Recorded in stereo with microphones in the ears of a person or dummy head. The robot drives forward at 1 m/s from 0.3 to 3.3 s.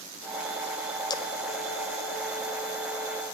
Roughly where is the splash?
Left.